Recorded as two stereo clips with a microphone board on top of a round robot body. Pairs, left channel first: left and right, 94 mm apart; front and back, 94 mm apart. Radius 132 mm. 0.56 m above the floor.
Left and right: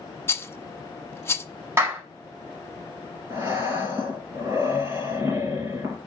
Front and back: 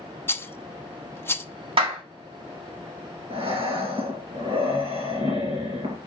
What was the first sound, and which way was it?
A rattle, 50° left.